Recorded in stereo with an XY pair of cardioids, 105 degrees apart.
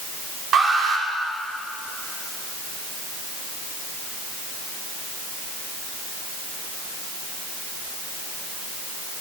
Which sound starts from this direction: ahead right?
An alarm, at 0.5 s.